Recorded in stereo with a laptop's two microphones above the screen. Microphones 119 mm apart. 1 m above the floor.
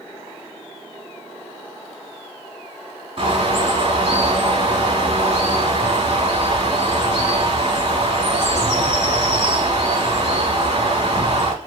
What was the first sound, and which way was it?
A bird, 55° right (ahead or behind).